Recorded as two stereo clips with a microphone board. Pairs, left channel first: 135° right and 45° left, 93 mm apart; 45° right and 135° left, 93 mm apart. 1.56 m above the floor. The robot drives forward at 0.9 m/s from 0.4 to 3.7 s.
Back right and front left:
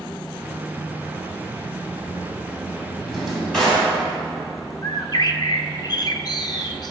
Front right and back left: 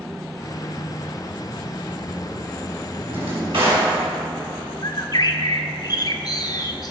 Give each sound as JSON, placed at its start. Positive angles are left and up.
{"t": 3.1, "sound": "a drawer", "azimuth_deg": 135, "distance_m": 4.5}
{"t": 4.8, "sound": "a bird", "azimuth_deg": -90, "distance_m": 0.8}